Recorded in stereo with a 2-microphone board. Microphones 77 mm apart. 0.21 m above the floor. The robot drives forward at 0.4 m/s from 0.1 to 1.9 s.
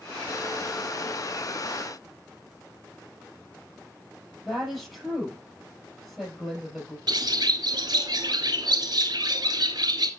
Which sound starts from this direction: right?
A bird, at 7.1 s.